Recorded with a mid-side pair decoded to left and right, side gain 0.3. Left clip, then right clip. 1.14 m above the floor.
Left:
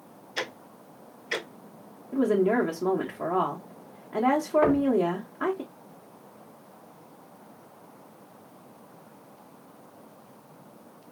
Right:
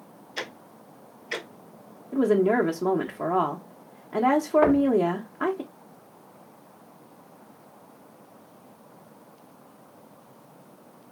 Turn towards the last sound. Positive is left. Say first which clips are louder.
# right 2 dB
turn(degrees=-45)